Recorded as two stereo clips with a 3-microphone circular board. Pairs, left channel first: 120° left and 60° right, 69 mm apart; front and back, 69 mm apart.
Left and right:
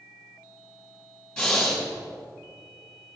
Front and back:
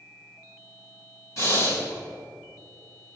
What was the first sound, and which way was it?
Breathing, 40° left.